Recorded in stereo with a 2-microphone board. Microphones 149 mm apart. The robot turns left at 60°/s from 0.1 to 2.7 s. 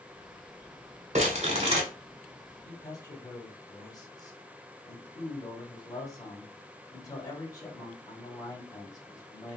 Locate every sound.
1.1 s crumpling: 85° right, 1.3 m; by 1.8 s 125° right, 1.3 m
2.6 s a man speaking: 25° left (ahead or behind), 1.3 m